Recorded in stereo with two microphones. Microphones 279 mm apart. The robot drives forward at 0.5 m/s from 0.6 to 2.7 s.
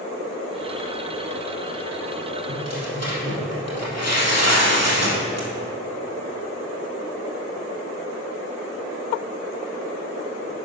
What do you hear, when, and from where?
2.5 s tearing paper: 65° left (ahead or behind), 3.5 m